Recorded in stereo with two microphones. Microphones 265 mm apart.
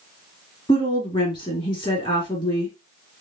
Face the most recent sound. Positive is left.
turn(degrees=20)  # may be behind; listen again after turning